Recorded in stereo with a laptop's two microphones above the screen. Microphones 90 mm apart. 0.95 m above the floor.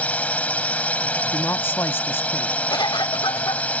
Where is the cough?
50° left (ahead or behind).